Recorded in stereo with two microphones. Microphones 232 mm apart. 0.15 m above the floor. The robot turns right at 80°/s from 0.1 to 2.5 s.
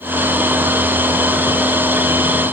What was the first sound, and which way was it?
Only background noise.